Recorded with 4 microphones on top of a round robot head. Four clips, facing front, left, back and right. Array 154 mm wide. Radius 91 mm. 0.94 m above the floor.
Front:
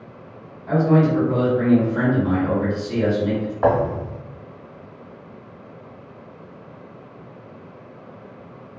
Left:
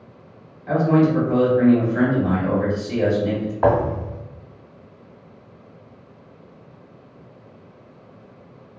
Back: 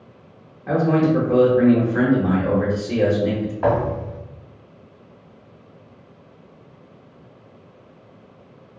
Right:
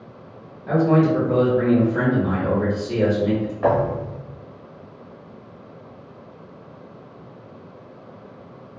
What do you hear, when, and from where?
0.7 s a man speaking: 145° right, 1.0 m
3.6 s a thud: 55° left, 0.7 m